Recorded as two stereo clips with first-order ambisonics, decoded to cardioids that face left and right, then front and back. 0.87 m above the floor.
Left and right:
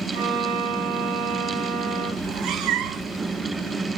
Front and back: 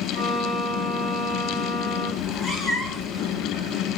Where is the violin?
85° right, 7.5 m.